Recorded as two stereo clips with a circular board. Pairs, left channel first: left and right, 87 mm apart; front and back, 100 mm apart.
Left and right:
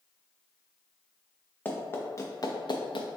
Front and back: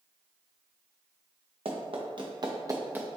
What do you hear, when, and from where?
1.6 s running footsteps: 160° left, 1.3 m; by 3.1 s 105° left, 0.8 m